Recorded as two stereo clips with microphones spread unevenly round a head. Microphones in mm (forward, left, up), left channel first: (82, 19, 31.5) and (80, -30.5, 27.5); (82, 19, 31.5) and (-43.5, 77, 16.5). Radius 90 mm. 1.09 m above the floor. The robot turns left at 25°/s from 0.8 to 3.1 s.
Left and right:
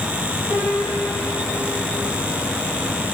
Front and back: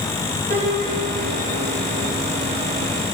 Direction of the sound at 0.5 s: 150° right.